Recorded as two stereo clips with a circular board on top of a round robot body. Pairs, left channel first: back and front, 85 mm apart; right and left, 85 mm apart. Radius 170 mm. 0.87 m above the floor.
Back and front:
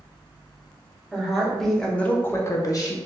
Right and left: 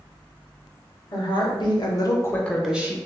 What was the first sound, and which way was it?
A woman speaking, 85° right.